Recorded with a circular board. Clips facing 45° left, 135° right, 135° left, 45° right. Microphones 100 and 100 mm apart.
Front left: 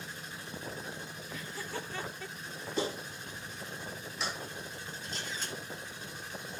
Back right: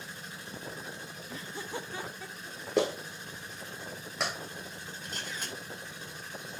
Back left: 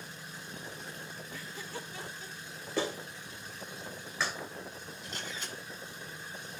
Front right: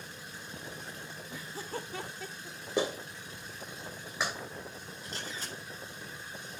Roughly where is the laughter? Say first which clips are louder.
Back right 2 dB, front right 5 dB; behind right.